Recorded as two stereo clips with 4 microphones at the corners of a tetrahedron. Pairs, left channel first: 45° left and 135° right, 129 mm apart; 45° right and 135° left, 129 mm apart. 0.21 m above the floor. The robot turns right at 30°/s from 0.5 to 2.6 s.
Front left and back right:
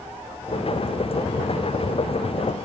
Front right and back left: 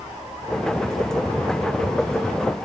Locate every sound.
Only background noise.